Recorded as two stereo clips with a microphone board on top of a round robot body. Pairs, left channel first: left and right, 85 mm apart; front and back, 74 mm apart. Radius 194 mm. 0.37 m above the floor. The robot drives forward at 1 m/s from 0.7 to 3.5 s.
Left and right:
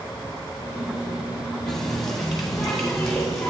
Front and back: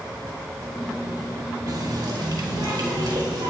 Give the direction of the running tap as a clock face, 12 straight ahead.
6 o'clock.